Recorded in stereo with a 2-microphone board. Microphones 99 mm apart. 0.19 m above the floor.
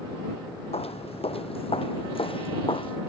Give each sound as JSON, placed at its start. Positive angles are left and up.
{"t": 0.7, "sound": "footsteps", "side_deg": 80}